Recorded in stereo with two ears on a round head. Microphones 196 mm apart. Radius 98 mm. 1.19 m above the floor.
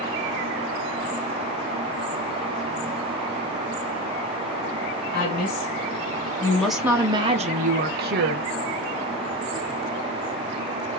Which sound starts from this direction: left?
A woman speaking, at 5.1 s.